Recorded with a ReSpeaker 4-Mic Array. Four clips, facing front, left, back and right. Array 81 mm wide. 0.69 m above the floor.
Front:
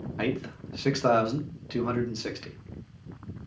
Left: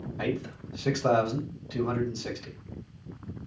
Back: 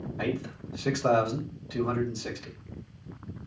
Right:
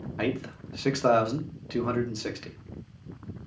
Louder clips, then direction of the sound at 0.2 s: Right 2 dB, front 2 dB; 55° right.